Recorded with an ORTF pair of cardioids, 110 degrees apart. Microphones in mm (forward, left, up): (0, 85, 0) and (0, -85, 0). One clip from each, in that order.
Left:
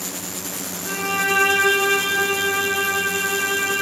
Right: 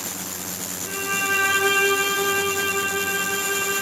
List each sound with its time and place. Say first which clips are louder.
0.8 s a violin: left 2 dB; 30° left, 3.5 m